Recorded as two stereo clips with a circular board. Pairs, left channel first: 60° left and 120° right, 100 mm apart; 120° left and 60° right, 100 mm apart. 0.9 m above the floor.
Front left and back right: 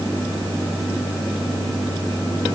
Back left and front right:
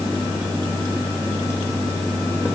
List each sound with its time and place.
Only background noise.